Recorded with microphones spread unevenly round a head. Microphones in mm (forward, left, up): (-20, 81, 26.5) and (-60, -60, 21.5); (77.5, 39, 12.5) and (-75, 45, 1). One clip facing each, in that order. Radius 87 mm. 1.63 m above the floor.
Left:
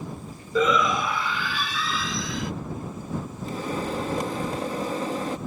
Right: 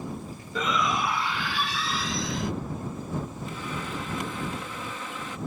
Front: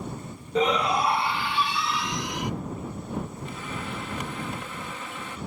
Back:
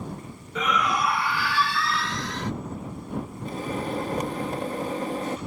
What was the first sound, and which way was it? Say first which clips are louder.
A shout: left 5 dB, front 3 dB; 55° left.